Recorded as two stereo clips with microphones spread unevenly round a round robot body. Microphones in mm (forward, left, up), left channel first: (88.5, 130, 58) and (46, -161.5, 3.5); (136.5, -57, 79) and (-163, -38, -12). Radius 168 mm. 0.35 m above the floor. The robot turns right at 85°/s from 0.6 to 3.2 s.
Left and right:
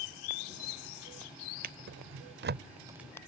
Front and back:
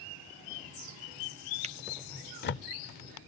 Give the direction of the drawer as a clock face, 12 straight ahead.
5 o'clock.